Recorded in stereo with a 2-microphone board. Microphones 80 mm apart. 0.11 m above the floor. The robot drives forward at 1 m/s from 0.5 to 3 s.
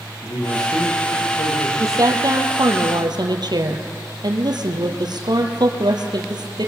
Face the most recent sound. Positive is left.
turn(degrees=-60)  # may be behind; listen again after turning